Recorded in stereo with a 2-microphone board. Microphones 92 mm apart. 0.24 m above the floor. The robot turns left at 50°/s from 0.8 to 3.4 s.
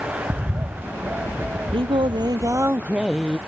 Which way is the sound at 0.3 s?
25° right (ahead or behind).